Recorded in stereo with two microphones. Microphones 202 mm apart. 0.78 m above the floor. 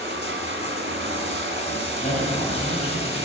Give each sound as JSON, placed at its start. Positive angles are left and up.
{"t": 0.0, "sound": "running water", "side_deg": -70, "distance_m": 1.6}
{"t": 2.0, "sound": "a man speaking", "side_deg": 30, "distance_m": 4.0}